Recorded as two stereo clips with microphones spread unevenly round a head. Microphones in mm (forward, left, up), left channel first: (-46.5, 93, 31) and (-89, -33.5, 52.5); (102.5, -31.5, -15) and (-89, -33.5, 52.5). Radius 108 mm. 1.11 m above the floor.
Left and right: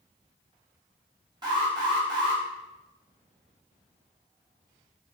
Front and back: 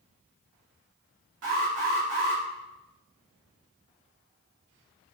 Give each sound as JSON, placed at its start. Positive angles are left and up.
{"t": 1.4, "sound": "an alarm", "azimuth_deg": -165, "distance_m": 4.0}